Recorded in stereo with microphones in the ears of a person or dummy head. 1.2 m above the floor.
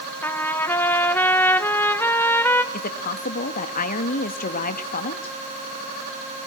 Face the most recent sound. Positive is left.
turn(degrees=45)  # may be behind; listen again after turning